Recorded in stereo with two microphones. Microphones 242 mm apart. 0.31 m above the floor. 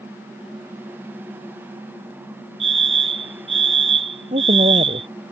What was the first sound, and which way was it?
A fire alarm, 55° right (ahead or behind).